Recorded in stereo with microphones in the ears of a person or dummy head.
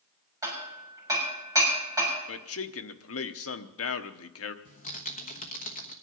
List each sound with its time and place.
0.4 s hammering: 15° right (ahead or behind), 6.5 m
2.3 s a man speaking: 65° left (ahead or behind), 0.9 m
4.7 s typing on a keyboard: 45° left (ahead or behind), 1.2 m